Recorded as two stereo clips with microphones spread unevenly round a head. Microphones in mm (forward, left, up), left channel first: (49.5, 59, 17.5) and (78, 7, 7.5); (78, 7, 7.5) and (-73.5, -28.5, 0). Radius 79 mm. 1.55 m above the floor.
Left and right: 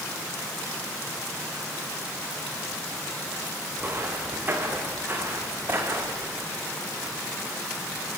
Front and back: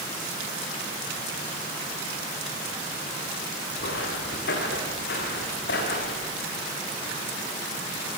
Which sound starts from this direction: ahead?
Footsteps, at 3.8 s.